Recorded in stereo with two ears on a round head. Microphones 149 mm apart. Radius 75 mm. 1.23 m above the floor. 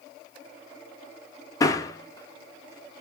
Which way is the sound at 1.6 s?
20° left (ahead or behind).